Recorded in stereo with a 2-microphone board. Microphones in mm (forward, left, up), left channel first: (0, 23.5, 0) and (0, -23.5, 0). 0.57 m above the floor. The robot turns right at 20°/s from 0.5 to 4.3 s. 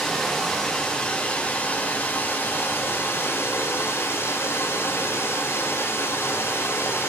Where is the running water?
10° left, 3.5 m; by 7.1 s 85° left, 3.5 m.